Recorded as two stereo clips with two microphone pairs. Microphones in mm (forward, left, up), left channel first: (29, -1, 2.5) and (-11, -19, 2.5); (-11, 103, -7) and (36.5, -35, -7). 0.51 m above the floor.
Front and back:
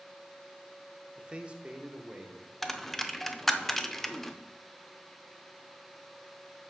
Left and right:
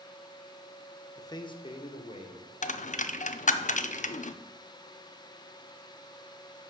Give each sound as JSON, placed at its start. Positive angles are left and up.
{"t": 1.2, "sound": "a man speaking", "azimuth_deg": 155, "distance_m": 0.8}
{"t": 2.6, "sound": "a dropped coin", "azimuth_deg": 105, "distance_m": 0.5}